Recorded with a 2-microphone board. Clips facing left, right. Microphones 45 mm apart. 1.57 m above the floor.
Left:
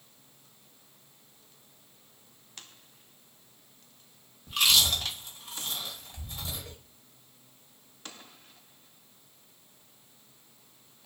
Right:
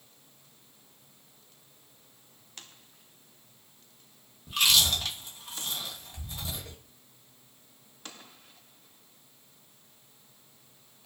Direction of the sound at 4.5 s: 5° right (ahead or behind).